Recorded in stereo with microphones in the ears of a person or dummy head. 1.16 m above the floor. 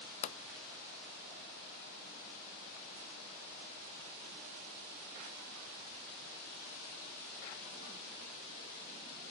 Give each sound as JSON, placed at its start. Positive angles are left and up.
{"t": 0.2, "sound": "a pop", "side_deg": 40, "distance_m": 0.7}